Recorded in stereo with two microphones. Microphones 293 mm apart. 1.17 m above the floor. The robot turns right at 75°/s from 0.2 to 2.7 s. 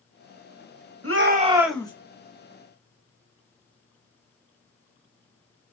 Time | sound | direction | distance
1.0 | a shout | 50° right | 1.0 m